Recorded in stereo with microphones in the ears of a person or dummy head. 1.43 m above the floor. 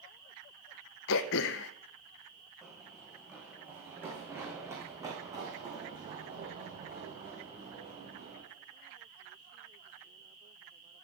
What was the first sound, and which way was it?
Throat clearing, 60° left (ahead or behind).